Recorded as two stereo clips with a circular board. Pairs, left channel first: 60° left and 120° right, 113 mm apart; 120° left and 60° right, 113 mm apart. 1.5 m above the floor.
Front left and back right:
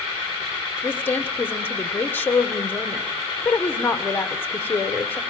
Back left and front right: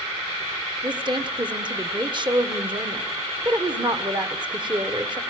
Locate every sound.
0.8 s a woman speaking: 15° right, 1.3 m